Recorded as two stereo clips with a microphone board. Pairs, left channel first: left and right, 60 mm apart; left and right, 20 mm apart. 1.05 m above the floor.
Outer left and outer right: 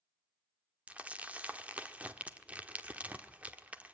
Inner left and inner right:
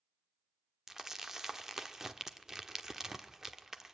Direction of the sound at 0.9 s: 20° right (ahead or behind).